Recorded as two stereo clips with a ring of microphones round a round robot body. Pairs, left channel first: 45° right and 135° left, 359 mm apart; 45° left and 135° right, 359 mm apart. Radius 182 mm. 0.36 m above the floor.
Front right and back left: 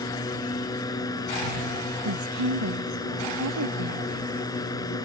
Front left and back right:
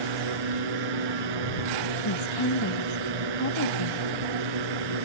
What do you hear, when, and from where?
0.0 s a drone: 125° right
2.0 s a woman speaking: 90° left